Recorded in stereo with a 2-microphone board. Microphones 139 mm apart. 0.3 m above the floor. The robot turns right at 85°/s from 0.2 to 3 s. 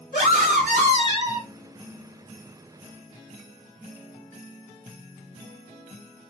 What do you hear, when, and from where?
0.1 s a scream: 120° right, 3 m; by 1.5 s 10° right, 3 m